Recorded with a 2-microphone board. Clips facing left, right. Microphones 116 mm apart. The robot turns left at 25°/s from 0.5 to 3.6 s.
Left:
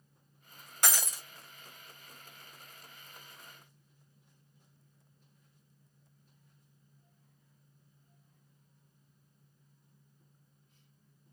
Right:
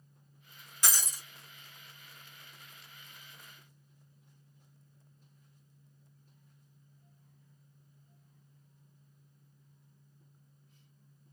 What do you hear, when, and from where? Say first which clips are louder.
0.8 s breaking glass: left 3 dB; 55° left (ahead or behind), 1.3 m; by 1.2 s 65° left (ahead or behind), 1.3 m